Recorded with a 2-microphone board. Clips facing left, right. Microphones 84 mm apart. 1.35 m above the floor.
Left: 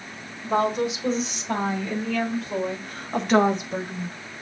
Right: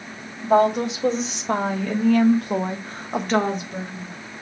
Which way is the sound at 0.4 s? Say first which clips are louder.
Right 5 dB; 85° right.